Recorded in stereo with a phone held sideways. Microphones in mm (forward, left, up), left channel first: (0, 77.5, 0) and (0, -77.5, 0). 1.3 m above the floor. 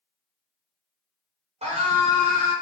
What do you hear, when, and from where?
1.6 s a scream: 40° right (ahead or behind), 1.1 m